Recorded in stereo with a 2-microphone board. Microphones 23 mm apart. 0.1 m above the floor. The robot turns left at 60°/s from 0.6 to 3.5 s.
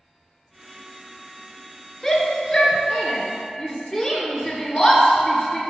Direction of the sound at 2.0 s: 15° left (ahead or behind).